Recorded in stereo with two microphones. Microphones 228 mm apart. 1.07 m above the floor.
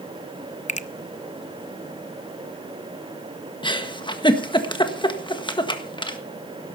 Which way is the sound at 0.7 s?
30° left (ahead or behind).